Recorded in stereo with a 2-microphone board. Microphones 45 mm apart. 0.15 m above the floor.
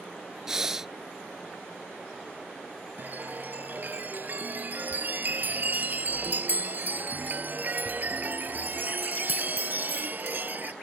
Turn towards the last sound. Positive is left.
turn(degrees=-45)  # may be behind; listen again after turning